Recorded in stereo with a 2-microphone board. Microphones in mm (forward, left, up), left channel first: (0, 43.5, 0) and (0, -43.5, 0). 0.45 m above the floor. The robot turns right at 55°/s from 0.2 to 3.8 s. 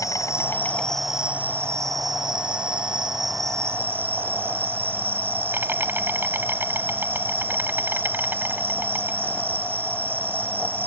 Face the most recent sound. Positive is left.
turn(degrees=-25)